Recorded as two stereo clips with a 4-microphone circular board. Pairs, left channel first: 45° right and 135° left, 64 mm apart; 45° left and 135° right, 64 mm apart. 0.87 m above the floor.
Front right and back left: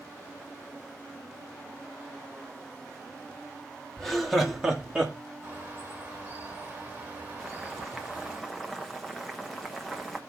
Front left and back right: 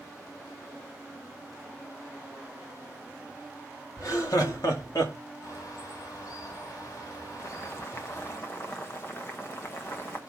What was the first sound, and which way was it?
Laughter, 35° left.